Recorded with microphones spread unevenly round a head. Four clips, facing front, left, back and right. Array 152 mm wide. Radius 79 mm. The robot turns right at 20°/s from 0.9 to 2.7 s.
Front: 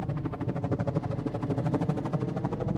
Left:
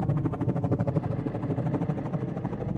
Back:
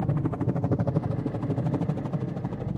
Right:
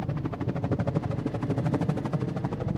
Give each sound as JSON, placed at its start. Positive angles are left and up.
{"t": 0.0, "sound": "a helicopter", "azimuth_deg": 130}